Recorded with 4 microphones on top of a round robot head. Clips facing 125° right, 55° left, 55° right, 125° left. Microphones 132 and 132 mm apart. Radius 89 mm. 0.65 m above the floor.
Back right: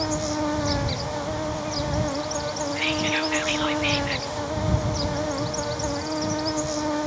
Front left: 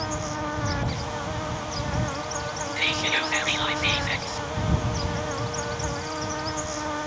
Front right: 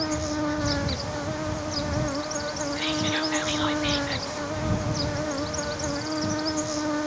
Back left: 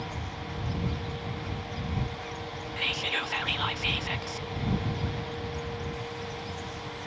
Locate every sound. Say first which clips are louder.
0.0 s an insect: back right 5 dB, front right 12 dB; 65° right
2.8 s whispering: back right 3 dB, front right 8 dB; 45° left